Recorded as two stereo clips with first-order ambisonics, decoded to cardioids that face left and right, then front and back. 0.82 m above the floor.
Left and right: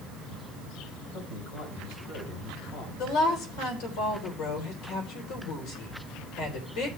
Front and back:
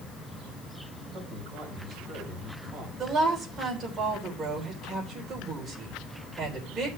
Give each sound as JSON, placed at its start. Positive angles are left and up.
{"t": 1.1, "sound": "a man speaking", "azimuth_deg": 100, "distance_m": 5.5}
{"t": 3.0, "sound": "a woman speaking", "azimuth_deg": 105, "distance_m": 3.0}